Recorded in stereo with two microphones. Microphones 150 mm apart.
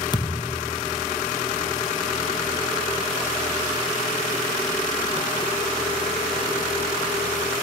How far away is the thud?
About 1.3 m.